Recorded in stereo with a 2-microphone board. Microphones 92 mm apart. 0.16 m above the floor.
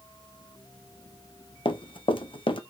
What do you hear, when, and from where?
1.6 s running footsteps: 65° left (ahead or behind), 0.6 m